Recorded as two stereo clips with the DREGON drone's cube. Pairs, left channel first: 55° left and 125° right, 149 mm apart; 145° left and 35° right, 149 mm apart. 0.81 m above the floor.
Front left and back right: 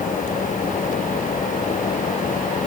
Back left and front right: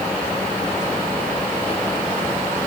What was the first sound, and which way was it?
Only background noise.